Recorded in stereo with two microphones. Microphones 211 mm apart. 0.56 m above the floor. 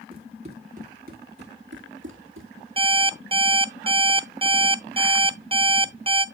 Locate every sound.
0.1 s running footsteps: 25° right (ahead or behind), 2 m; by 2.5 s 70° right (ahead or behind), 1.6 m
2.8 s an alarm clock: 25° right (ahead or behind), 0.6 m